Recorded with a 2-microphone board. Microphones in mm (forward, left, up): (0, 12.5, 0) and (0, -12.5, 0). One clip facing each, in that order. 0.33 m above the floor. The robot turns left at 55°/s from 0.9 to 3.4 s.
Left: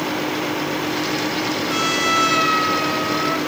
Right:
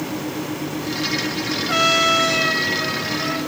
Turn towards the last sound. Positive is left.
turn(degrees=100)